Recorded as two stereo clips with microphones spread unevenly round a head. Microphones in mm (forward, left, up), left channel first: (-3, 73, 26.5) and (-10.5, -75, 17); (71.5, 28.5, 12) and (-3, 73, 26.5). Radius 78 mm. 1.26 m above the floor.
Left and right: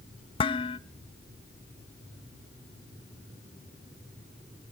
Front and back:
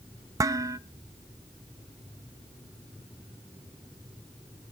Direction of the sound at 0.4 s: 130° left.